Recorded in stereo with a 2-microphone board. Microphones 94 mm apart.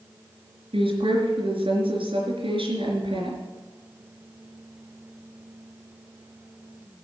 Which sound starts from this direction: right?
A woman speaking, at 0.7 s.